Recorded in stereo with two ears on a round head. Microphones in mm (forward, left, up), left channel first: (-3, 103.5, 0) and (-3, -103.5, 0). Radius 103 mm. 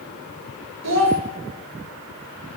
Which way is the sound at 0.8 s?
80° right.